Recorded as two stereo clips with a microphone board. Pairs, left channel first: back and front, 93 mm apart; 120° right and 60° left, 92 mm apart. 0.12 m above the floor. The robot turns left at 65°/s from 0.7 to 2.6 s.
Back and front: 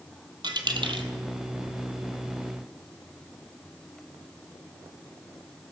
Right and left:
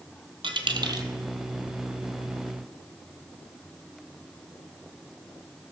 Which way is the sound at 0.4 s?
35° left.